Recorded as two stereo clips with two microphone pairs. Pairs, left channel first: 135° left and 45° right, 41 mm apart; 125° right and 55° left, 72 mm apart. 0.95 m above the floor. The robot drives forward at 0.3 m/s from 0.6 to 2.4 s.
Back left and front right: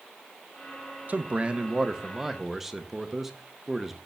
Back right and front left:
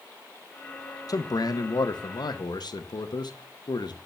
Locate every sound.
1.1 s a man speaking: 90° right, 0.6 m; by 4.0 s 125° right, 0.7 m